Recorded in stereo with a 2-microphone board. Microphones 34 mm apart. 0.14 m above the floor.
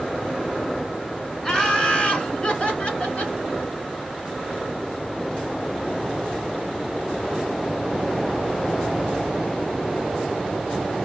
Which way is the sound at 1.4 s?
25° left (ahead or behind).